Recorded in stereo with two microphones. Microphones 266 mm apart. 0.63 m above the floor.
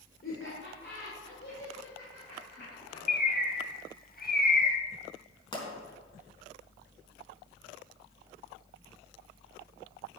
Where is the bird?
35° left (ahead or behind), 1.1 m.